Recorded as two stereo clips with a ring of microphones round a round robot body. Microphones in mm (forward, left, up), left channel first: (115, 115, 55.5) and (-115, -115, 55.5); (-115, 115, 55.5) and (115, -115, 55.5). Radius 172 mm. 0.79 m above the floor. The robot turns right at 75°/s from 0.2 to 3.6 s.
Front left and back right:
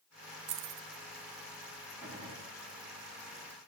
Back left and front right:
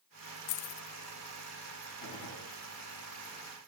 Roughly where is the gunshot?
Behind left.